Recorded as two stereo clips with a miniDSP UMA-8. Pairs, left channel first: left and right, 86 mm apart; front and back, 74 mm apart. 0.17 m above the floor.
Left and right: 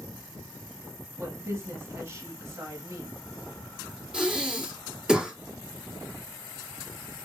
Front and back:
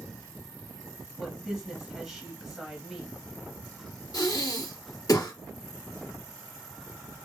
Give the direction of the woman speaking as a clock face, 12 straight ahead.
3 o'clock.